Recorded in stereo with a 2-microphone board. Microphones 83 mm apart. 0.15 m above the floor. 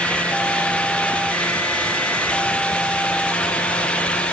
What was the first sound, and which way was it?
Only background noise.